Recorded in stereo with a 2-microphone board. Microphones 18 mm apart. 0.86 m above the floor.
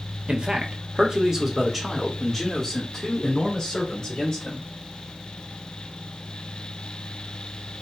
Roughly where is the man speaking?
Right.